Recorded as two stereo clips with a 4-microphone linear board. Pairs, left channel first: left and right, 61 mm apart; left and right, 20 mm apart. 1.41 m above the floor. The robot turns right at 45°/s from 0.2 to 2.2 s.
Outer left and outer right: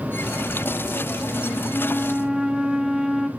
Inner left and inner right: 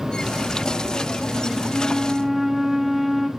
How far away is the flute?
About 1.0 m.